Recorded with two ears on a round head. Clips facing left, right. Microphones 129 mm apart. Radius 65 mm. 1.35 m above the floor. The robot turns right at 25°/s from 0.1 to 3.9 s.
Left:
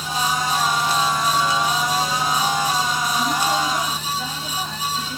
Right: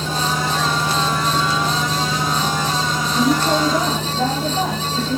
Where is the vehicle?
45° right (ahead or behind).